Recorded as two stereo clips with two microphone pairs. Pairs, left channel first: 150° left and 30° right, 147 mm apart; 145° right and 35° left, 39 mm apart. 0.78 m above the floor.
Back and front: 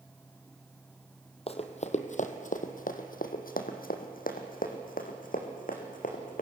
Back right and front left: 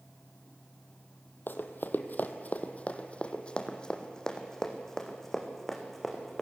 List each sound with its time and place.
1.5 s running footsteps: 165° right, 1.8 m; by 6.4 s 130° left, 4 m